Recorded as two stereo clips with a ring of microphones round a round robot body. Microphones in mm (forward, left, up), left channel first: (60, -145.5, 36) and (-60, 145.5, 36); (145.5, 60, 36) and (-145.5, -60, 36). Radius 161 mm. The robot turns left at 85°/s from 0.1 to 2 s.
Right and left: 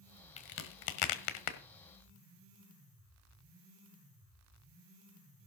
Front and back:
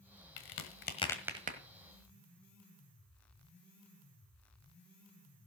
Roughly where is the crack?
Ahead.